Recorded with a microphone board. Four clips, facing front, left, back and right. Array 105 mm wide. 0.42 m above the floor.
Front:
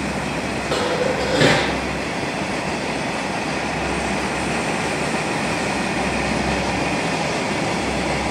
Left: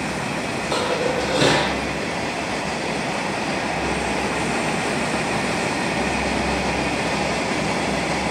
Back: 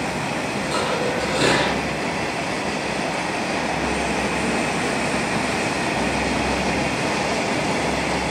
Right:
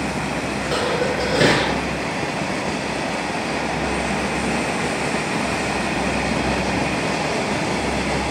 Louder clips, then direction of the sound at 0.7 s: Even, front 3 dB; 50° right.